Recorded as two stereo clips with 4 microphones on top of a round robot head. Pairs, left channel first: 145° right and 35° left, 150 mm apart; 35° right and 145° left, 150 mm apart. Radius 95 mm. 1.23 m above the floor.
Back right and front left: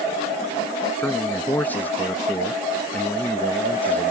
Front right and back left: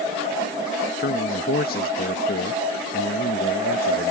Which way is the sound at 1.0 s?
65° right.